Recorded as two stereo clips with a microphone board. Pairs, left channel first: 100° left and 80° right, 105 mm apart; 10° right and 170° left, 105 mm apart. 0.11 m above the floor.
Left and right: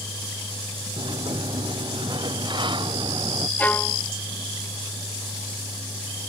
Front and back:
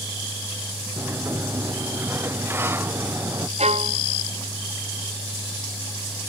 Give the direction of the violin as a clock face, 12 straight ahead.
6 o'clock.